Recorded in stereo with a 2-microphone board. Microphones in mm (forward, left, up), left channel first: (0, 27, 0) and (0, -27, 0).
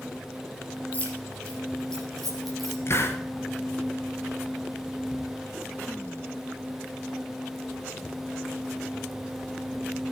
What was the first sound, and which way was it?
Keys jangling, 25° left (ahead or behind).